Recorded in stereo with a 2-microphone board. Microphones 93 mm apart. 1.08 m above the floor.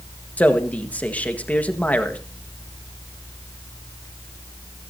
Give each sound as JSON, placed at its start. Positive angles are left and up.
{"t": 0.4, "sound": "a man speaking", "side_deg": 15, "distance_m": 1.5}